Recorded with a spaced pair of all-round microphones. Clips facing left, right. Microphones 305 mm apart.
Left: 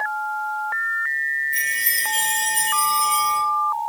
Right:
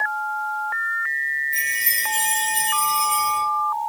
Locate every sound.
1.5 s a chime: 15° left (ahead or behind), 1.5 m